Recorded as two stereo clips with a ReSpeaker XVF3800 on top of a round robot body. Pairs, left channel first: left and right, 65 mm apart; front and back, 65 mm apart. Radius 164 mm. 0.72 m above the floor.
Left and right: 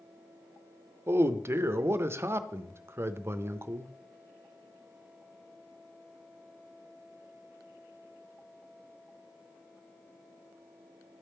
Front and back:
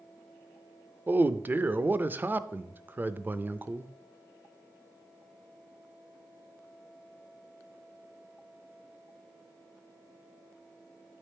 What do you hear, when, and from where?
1.1 s a man speaking: 125° right, 0.6 m